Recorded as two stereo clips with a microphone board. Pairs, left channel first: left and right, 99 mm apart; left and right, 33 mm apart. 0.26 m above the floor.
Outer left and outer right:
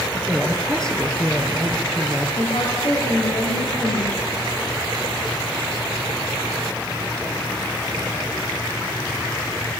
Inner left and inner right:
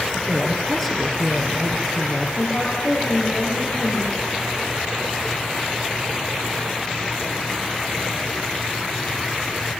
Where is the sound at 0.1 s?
5° left (ahead or behind), 4.5 m.